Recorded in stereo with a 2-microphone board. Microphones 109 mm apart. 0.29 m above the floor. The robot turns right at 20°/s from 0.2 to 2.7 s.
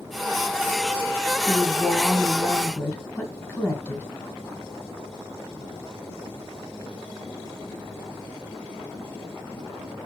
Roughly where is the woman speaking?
Centre.